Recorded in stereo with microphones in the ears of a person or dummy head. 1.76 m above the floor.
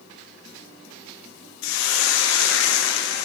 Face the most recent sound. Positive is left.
turn(degrees=70)  # may be behind; listen again after turning